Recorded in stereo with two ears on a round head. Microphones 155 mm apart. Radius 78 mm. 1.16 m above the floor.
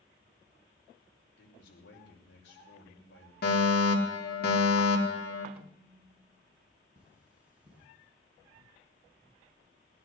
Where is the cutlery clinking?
10° right (ahead or behind), 6.5 m.